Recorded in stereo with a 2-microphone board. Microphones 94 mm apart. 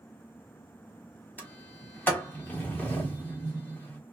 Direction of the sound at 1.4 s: 15° left (ahead or behind).